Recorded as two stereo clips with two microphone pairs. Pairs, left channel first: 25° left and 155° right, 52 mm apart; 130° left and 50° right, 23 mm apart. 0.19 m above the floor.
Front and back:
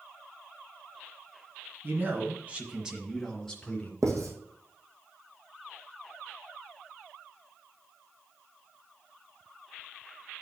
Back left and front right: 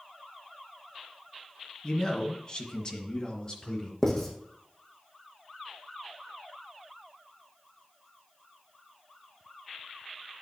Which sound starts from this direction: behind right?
Writing, at 4.0 s.